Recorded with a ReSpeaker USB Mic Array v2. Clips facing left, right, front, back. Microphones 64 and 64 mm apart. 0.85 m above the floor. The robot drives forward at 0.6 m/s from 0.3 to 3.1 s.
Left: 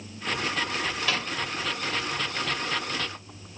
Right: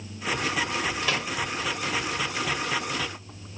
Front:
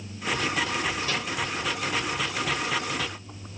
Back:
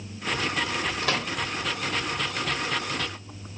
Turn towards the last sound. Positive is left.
turn(degrees=-175)